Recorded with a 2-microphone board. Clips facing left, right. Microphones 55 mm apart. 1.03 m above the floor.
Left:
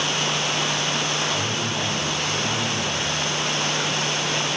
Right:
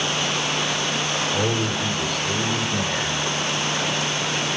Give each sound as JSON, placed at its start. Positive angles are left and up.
{"t": 1.3, "sound": "a man speaking", "side_deg": -80, "distance_m": 3.0}